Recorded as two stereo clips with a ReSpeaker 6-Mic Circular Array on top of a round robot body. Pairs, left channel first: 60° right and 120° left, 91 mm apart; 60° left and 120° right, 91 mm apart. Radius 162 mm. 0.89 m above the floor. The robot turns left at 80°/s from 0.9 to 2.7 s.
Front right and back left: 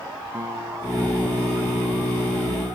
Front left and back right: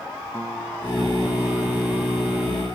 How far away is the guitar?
About 6.5 m.